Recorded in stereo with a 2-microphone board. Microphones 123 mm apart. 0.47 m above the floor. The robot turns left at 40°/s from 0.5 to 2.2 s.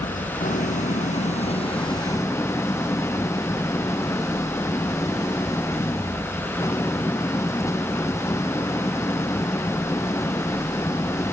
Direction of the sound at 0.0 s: 90° left.